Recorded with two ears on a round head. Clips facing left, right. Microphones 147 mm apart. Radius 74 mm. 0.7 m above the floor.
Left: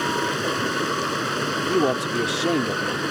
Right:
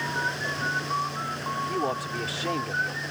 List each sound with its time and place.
0.0 s running water: 85° left
1.7 s a man speaking: 50° left (ahead or behind)